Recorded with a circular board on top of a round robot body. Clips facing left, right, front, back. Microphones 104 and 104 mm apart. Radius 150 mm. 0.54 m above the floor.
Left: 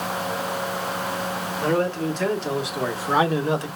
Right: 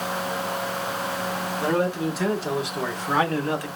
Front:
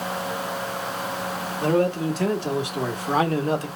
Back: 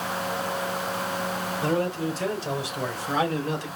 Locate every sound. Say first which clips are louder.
1.6 s a man speaking: left 1 dB, front 5 dB; 20° right, 2 m; by 3.7 s 30° left, 1.3 m